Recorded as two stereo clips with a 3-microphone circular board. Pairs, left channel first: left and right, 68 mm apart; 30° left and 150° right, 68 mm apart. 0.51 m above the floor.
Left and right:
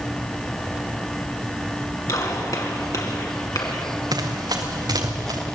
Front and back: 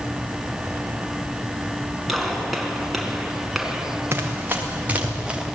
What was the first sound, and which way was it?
A gunshot, 120° left.